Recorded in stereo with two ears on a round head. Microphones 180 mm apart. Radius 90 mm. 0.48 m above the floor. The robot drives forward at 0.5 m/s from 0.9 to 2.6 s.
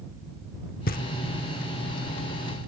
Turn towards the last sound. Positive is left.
turn(degrees=25)  # may be behind; listen again after turning